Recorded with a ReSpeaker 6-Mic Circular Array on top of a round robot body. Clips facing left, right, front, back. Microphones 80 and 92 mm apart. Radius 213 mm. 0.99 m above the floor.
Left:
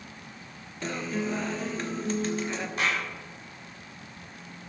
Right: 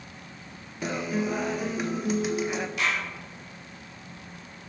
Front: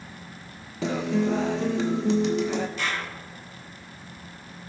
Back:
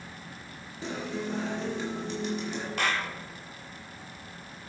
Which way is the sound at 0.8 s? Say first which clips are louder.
Right 3 dB, front 9 dB; 10° right.